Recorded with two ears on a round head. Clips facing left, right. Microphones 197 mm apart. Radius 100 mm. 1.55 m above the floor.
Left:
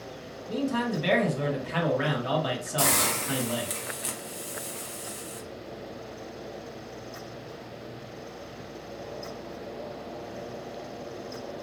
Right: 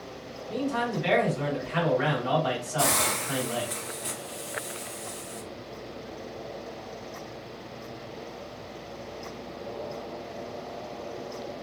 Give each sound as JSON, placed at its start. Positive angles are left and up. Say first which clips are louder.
{"t": 0.5, "sound": "a man speaking", "louder": "left 1 dB", "side_deg": 50, "distance_m": 1.1}
{"t": 2.8, "sound": "a hiss", "louder": "left 1 dB", "side_deg": 45, "distance_m": 0.6}